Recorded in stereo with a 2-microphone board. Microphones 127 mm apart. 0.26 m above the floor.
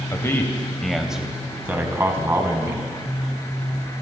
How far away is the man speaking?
About 0.9 m.